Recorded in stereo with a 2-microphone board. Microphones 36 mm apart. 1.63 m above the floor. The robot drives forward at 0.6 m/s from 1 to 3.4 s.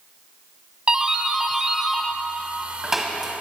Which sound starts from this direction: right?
A doorbell, at 0.9 s.